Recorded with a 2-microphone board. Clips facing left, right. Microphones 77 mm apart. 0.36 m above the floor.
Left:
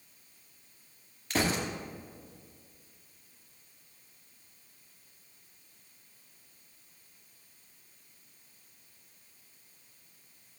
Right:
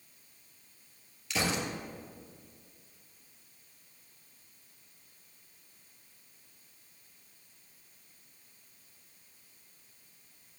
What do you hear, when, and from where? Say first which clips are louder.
1.3 s a gunshot: left 2 dB; 40° left (ahead or behind), 2.5 m